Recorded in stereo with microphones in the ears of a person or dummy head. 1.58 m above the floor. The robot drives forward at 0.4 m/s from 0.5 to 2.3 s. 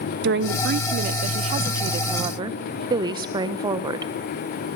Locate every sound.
0.2 s a woman speaking: 55° right (ahead or behind), 0.6 m; by 4.1 s 30° right (ahead or behind), 1.0 m